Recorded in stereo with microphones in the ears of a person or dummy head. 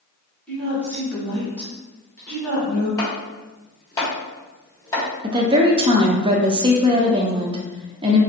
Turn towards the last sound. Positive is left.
turn(degrees=-20)  # may be behind; listen again after turning